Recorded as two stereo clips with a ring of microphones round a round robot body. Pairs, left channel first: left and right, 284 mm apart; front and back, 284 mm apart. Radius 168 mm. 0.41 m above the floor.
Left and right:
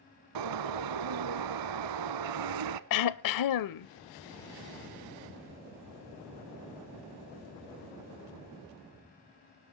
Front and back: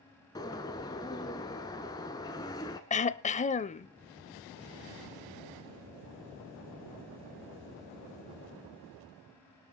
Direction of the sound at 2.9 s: 70° left.